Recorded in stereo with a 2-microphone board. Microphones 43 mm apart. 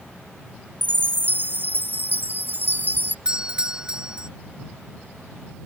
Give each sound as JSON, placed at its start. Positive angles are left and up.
{"t": 0.8, "sound": "a chime", "side_deg": -50}
{"t": 3.2, "sound": "a doorbell", "side_deg": -20}